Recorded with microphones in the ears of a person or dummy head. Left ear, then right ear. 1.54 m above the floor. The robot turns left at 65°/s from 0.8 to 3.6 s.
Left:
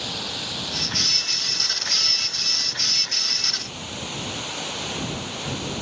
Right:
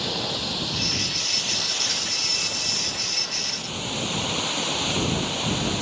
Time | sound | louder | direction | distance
0.0 | running water | right 2 dB | 5° left | ?